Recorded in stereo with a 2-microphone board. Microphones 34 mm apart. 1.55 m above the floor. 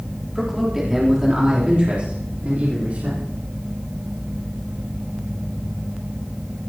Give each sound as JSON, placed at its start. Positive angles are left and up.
{"t": 0.3, "sound": "a man speaking", "side_deg": 0, "distance_m": 4.0}